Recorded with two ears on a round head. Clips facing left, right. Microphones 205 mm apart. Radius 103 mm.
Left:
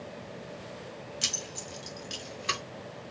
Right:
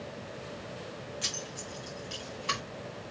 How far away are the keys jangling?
About 1.5 m.